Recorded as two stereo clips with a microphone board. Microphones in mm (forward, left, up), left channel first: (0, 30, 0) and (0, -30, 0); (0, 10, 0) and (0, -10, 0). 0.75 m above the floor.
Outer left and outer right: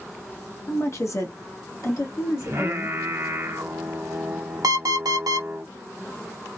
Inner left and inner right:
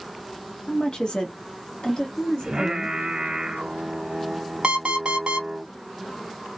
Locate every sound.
0.7 s a woman speaking: 45° left (ahead or behind), 0.9 m; by 3.0 s 60° left (ahead or behind), 1.7 m
2.4 s singing: 50° right (ahead or behind), 1.3 m
4.6 s an alarm clock: 85° right, 0.9 m